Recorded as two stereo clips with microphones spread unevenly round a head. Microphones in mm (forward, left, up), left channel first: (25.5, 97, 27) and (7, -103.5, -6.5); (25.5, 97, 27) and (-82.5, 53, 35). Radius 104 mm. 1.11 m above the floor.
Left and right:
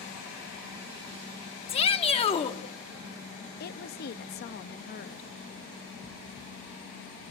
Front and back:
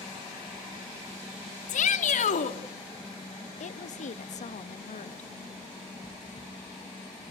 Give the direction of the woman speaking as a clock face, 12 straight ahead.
11 o'clock.